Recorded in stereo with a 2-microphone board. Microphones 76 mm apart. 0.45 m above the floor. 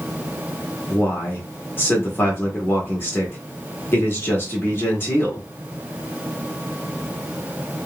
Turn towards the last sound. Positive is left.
turn(degrees=25)  # may be behind; listen again after turning